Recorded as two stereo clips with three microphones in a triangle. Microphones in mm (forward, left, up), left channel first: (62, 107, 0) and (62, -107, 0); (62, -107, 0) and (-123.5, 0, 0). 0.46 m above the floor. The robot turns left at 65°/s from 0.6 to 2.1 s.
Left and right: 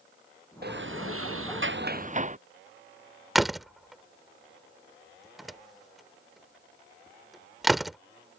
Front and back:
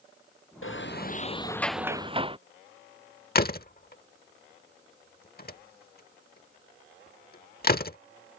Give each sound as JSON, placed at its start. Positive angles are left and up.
{"t": 0.6, "sound": "a sliding door", "azimuth_deg": -50}
{"t": 3.4, "sound": "a door slam", "azimuth_deg": 0}